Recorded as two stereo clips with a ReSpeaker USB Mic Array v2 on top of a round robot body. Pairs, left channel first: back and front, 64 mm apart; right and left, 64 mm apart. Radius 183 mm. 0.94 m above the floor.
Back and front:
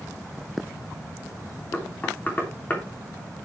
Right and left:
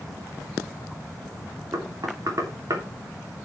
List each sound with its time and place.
1.7 s knocking: 120° left, 3 m